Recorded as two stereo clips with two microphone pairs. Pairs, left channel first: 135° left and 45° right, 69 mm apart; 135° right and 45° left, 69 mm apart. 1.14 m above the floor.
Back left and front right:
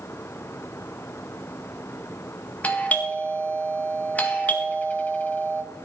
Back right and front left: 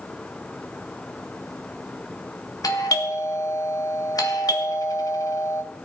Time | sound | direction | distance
2.6 | a doorbell | 160° right | 1.7 m